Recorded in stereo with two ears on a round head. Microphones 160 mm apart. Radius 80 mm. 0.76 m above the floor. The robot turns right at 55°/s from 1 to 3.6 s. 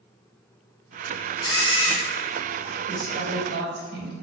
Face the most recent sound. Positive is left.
turn(degrees=-105)